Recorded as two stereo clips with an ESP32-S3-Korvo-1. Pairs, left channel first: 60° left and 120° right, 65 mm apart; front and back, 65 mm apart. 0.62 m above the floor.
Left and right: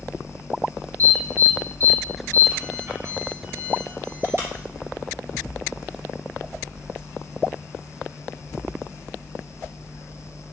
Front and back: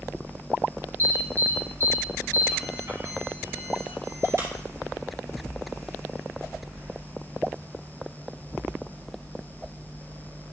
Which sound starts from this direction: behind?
An alarm, at 1.0 s.